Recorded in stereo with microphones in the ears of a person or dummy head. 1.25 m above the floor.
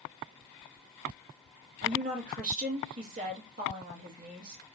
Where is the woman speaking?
50° right (ahead or behind), 1.5 m.